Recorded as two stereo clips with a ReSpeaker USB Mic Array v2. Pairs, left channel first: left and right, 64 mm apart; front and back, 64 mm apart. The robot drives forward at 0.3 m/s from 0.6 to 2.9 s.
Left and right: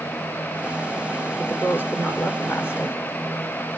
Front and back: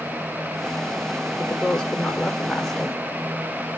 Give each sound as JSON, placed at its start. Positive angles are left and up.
{"t": 1.4, "sound": "a woman speaking", "azimuth_deg": 65, "distance_m": 1.8}